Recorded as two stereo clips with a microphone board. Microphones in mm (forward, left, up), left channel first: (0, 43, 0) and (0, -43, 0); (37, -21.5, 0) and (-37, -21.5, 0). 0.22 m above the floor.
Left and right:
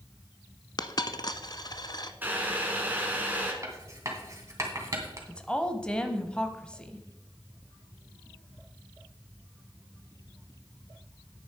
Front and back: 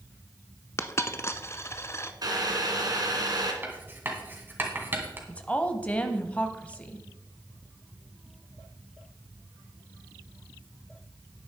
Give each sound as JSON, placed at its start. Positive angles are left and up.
{"t": 0.8, "sound": "a dropped coin", "azimuth_deg": 55, "distance_m": 0.6}
{"t": 2.2, "sound": "boiling", "azimuth_deg": -155, "distance_m": 1.9}
{"t": 3.6, "sound": "writing", "azimuth_deg": -130, "distance_m": 2.0}
{"t": 5.3, "sound": "a woman speaking", "azimuth_deg": 35, "distance_m": 1.0}